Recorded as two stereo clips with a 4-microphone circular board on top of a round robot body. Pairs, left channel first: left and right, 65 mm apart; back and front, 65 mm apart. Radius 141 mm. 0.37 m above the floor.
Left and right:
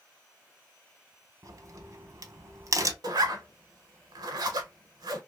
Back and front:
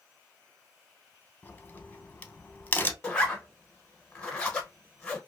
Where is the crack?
120° right, 0.8 m.